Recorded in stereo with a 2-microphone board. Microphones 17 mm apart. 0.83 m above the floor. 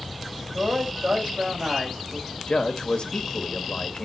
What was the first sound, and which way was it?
A man speaking, 50° right (ahead or behind).